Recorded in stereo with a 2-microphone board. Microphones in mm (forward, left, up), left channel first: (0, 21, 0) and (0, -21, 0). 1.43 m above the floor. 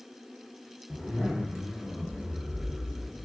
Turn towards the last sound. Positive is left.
turn(degrees=-5)  # may be behind; listen again after turning